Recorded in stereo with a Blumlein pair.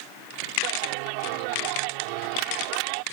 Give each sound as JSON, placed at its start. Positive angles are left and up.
{"t": 0.6, "sound": "a clap", "azimuth_deg": -45}